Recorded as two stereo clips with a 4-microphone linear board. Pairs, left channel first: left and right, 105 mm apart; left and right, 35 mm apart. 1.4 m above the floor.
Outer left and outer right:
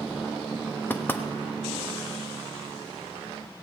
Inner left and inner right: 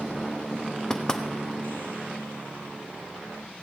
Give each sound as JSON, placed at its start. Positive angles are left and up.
{"t": 0.9, "sound": "knocking", "side_deg": 20, "distance_m": 1.0}